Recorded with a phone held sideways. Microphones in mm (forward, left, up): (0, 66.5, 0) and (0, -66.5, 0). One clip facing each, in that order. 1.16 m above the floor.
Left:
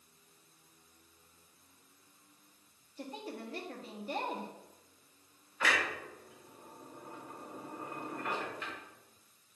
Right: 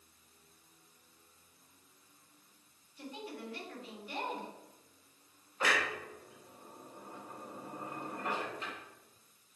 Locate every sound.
3.0 s a woman speaking: 40° left (ahead or behind), 1.7 m
5.6 s a clunk: 35° right (ahead or behind), 3 m